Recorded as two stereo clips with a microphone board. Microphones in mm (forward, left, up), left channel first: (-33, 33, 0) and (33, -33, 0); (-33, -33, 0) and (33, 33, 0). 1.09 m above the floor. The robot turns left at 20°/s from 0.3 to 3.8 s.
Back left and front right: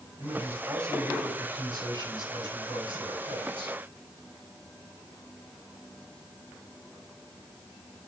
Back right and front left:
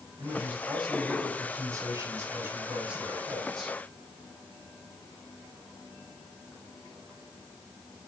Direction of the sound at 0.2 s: 20° left.